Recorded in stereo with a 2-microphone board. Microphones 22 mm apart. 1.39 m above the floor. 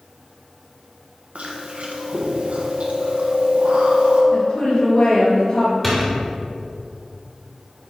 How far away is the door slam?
About 2.5 m.